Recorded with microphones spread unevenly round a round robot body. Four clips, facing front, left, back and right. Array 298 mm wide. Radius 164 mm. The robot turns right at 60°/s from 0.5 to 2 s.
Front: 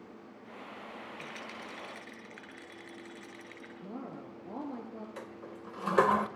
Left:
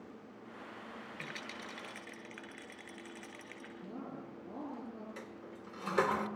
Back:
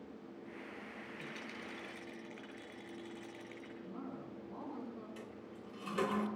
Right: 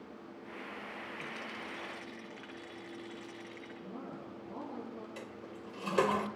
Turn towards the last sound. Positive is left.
turn(degrees=-10)